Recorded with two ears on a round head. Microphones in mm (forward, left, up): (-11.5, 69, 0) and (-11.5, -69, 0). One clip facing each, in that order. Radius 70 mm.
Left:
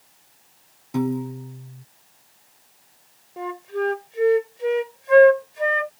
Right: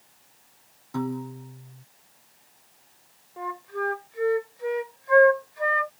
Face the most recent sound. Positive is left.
turn(degrees=30)  # may be behind; listen again after turning